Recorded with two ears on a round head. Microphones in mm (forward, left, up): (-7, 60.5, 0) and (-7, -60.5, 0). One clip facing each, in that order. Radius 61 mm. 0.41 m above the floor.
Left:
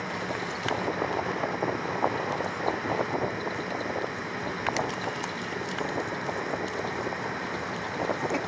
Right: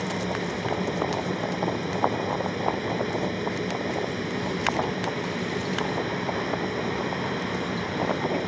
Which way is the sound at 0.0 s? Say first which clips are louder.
Right 4 dB; 30° right (ahead or behind).